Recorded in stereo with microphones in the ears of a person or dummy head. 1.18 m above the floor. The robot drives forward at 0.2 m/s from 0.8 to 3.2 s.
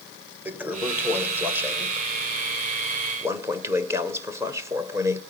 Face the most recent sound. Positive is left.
turn(degrees=-20)  # may be behind; listen again after turning